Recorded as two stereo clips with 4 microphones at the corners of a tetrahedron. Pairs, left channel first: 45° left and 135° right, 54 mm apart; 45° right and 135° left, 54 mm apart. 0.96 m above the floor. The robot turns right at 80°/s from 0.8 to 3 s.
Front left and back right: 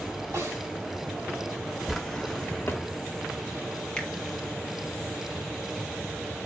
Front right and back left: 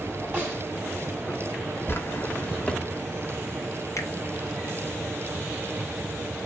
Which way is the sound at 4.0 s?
30° right.